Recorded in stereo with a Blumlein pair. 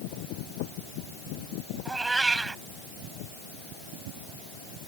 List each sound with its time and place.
1.9 s a cat meowing: 10° right